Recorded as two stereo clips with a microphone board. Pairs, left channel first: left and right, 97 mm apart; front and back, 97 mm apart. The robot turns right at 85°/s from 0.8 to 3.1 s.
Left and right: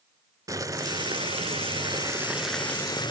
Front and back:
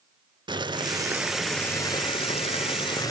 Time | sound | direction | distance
0.5 | boiling | 145° right | 0.8 m